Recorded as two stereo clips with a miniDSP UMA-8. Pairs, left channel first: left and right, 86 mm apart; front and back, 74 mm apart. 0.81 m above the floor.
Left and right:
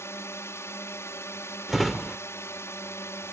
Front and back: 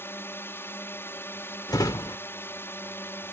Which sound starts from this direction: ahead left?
A drone, at 0.0 s.